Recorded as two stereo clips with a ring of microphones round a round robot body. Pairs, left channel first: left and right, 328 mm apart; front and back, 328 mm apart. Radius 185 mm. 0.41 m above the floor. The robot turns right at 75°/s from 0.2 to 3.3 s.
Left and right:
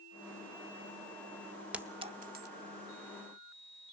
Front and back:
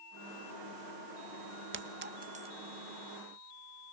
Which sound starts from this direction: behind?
A clink, at 1.7 s.